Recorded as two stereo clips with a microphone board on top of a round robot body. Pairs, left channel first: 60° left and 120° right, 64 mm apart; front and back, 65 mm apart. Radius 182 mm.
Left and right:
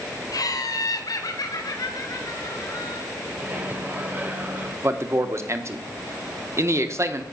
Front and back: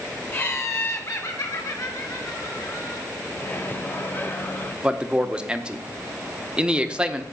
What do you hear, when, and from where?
0.3 s laughter: 50° left, 2.5 m; by 3.0 s 30° left, 4 m
3.3 s a microwave: 60° right, 1.6 m
4.8 s a man speaking: 110° right, 1.4 m